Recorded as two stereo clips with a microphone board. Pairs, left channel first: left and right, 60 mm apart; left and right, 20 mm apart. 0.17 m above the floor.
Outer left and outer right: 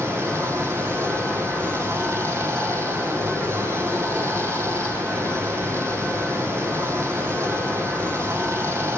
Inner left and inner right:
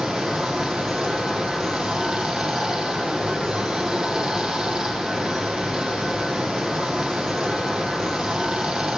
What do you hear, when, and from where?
0.0 s running water: 50° right (ahead or behind), 4.5 m